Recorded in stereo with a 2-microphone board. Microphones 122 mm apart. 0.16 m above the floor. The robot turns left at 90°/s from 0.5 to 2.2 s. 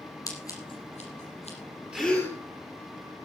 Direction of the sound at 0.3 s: 30° left (ahead or behind).